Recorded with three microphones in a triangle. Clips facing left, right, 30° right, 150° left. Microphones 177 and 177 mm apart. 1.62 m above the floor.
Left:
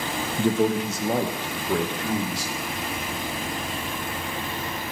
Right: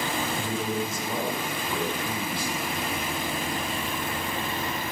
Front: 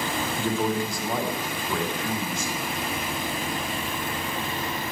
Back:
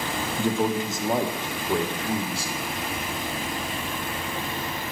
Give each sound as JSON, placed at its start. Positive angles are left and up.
{"t": 0.4, "sound": "a man speaking", "azimuth_deg": 75, "distance_m": 0.9}